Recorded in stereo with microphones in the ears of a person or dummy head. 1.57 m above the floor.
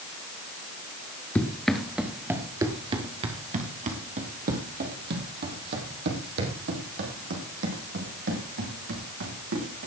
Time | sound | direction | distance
1.4 | running footsteps | 5° left (ahead or behind) | 1.8 m